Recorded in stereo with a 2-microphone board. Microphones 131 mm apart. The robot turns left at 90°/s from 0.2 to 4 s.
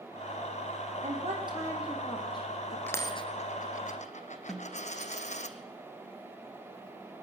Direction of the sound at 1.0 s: 75° right (ahead or behind).